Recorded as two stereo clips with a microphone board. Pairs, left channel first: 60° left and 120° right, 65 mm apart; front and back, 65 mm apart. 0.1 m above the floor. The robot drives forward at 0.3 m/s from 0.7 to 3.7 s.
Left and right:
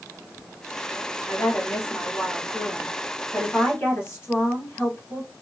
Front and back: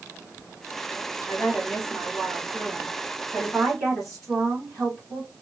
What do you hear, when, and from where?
1.3 s a woman speaking: 60° left, 1.9 m; by 5.3 s 100° left, 1.8 m